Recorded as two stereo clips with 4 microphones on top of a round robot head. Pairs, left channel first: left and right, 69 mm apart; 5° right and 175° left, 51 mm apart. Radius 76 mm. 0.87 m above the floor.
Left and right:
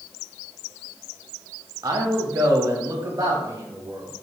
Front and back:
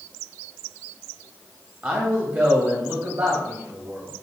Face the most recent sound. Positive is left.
turn(degrees=-140)